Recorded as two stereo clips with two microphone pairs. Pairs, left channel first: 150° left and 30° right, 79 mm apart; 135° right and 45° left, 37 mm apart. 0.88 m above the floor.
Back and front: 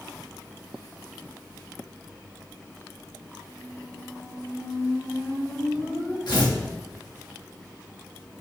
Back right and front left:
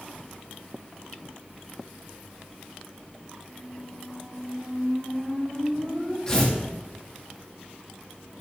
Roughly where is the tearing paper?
Behind left.